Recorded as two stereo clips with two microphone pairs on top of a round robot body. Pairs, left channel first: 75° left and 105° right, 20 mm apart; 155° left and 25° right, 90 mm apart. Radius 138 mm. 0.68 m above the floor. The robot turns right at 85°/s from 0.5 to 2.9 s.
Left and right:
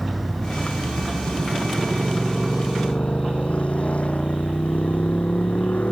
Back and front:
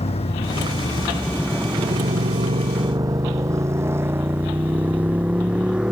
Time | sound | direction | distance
0.0 | a motorcycle | 160° left | ?